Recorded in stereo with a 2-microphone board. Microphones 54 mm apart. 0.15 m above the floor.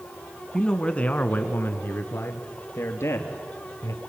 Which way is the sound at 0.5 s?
10° left (ahead or behind).